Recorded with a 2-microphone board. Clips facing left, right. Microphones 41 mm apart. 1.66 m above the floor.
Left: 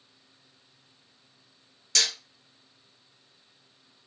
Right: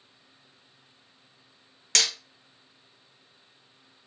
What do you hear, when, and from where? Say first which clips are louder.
1.9 s hammering: right 1 dB; 60° right (ahead or behind), 0.9 m